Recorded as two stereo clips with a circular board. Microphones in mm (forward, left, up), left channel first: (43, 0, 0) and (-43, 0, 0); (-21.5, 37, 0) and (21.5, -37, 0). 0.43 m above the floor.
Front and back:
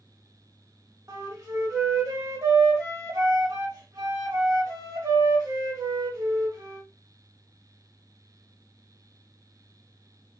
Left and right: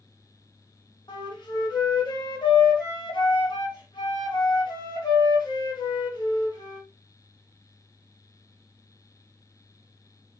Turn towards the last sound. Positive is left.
turn(degrees=135)